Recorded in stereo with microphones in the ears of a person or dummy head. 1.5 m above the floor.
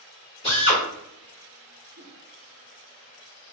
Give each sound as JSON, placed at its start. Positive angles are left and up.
{"t": 0.4, "sound": "a drill", "side_deg": 30, "distance_m": 1.5}
{"t": 1.9, "sound": "a whoosh", "side_deg": -25, "distance_m": 0.7}